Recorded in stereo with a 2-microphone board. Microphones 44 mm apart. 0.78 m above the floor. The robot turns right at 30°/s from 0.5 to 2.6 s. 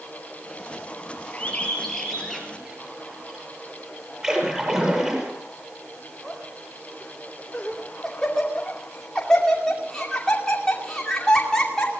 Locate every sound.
1.3 s a bird: 30° left (ahead or behind), 5 m; by 3.5 s 10° right (ahead or behind), 5 m
4.2 s a splash: 20° right (ahead or behind), 7.5 m
6.2 s laughter: 15° left (ahead or behind), 2.5 m